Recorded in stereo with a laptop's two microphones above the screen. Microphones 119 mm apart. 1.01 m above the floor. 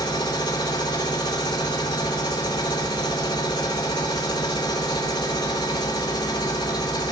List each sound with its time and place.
0.0 s a machine running: 40° left (ahead or behind), 3 m